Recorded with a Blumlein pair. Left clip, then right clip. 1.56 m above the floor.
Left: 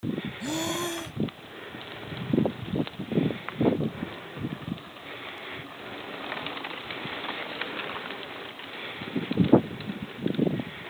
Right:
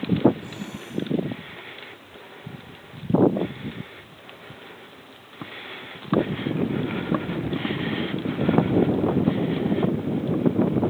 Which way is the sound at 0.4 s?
35° left.